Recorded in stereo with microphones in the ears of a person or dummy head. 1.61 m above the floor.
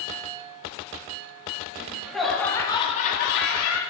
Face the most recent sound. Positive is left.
turn(degrees=90)